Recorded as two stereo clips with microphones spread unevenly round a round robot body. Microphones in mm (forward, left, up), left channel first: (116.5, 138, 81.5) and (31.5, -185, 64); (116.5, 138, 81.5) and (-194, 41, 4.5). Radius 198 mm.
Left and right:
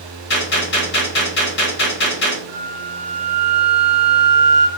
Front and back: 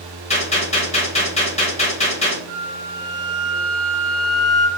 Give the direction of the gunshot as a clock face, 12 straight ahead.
9 o'clock.